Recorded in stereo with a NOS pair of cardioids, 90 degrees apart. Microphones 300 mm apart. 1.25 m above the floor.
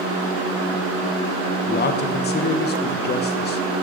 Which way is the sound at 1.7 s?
35° left.